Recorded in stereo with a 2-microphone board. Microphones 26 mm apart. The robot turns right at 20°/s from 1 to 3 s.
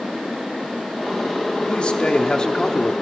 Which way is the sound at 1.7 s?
40° left (ahead or behind).